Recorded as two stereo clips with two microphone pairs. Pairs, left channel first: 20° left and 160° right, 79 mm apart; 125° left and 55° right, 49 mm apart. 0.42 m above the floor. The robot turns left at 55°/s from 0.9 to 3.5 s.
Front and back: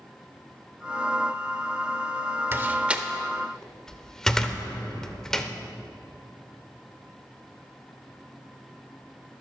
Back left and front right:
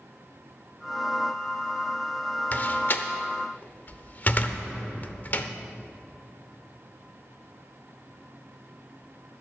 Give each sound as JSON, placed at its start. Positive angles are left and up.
{"t": 2.5, "sound": "a door slam", "azimuth_deg": 155, "distance_m": 0.6}